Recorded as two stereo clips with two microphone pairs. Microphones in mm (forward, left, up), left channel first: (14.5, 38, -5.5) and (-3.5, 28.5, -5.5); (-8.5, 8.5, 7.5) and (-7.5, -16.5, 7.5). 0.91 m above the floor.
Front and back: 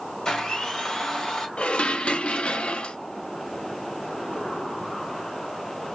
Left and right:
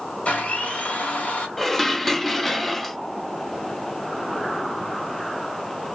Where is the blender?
80° left, 1.8 m.